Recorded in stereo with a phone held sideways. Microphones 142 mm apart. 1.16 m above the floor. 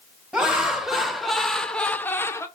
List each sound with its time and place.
0.3 s laughter: 5° right (ahead or behind), 1.5 m; by 2.5 s 20° left (ahead or behind), 0.6 m